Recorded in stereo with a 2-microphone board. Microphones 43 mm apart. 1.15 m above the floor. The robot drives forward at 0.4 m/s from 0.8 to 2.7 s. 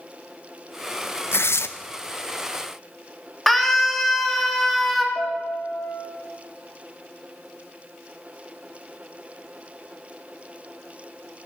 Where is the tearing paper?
70° left (ahead or behind), 0.5 m; by 1.7 s 80° left, 0.5 m.